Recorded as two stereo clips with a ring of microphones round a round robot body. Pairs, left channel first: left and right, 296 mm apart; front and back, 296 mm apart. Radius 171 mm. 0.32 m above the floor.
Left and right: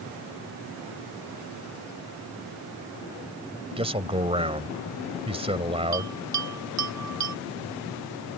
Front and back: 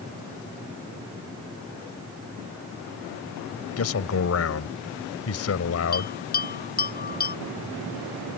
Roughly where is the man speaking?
Ahead.